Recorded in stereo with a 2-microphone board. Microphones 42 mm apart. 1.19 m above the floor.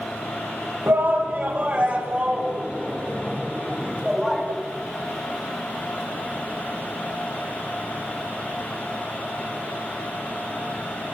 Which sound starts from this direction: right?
A shout, at 0.9 s.